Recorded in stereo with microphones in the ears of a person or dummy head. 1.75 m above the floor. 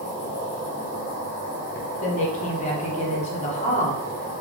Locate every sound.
0.0 s an insect: 45° left (ahead or behind), 1.1 m
2.0 s a woman speaking: 40° left (ahead or behind), 0.9 m